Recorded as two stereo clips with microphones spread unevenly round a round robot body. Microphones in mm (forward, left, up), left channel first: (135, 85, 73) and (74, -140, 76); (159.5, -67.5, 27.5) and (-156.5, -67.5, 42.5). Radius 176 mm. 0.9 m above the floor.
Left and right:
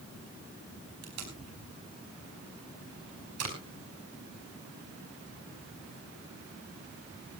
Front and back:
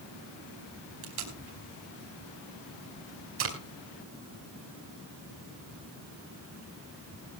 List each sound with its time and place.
1.0 s tape being pulled: 135° right, 5 m